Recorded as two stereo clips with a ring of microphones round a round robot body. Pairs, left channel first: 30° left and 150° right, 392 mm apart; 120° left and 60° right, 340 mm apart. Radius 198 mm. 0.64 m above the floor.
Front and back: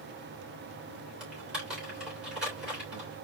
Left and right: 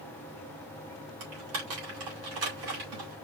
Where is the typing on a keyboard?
60° right, 3 m.